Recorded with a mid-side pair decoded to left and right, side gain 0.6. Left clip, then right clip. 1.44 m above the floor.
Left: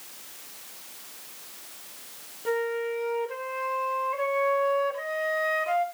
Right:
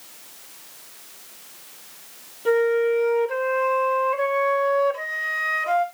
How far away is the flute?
About 2 m.